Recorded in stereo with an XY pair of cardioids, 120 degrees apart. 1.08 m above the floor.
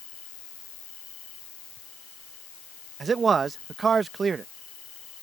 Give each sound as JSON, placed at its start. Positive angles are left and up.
{"t": 0.0, "sound": "an insect", "azimuth_deg": 60}
{"t": 3.0, "sound": "a man speaking", "azimuth_deg": -35}